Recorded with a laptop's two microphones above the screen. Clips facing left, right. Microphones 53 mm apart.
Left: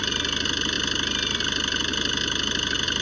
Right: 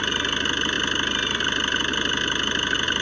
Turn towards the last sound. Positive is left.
turn(degrees=-20)  # may be behind; listen again after turning